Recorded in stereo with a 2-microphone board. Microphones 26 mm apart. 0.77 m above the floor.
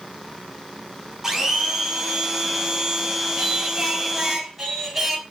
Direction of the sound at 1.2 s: 20° right (ahead or behind).